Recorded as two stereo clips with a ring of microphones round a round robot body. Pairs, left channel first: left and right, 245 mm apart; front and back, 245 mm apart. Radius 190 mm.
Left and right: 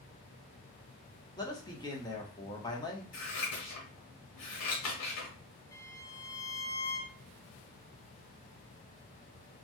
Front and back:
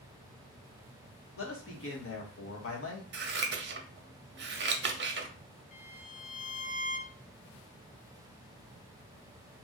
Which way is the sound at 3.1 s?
130° left.